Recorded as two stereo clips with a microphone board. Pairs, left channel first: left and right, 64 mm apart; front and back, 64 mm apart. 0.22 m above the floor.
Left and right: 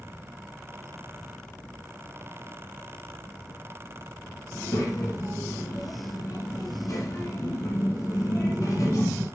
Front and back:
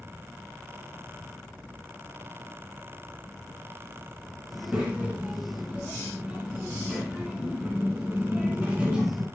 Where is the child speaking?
110° left, 1.8 m.